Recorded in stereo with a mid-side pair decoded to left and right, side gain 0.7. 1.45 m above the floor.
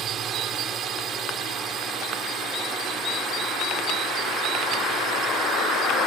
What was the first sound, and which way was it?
A drone, 45° right.